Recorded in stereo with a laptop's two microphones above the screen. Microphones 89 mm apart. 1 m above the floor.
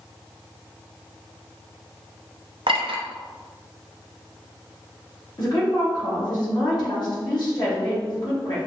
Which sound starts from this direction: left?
A woman speaking, at 5.4 s.